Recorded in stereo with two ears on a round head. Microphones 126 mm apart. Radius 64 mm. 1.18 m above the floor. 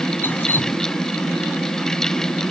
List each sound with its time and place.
0.2 s dripping: 15° left (ahead or behind)